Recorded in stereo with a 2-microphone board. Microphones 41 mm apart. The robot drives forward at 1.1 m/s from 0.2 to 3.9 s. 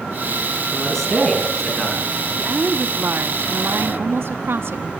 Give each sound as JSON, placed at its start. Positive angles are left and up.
{"t": 0.7, "sound": "a man speaking", "side_deg": 5, "distance_m": 9.0}
{"t": 2.4, "sound": "a woman speaking", "side_deg": -45, "distance_m": 1.9}